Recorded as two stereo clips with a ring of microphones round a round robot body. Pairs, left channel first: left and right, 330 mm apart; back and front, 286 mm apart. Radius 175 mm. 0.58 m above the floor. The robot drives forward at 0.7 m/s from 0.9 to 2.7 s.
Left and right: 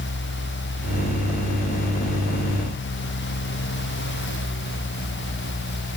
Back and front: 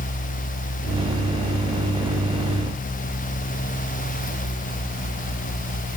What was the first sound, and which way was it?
Only background noise.